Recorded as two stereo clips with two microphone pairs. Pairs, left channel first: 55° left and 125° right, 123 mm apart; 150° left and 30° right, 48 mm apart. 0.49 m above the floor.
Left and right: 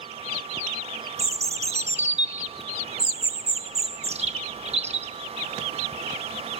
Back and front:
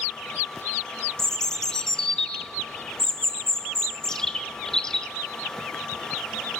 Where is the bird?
140° right, 0.6 m.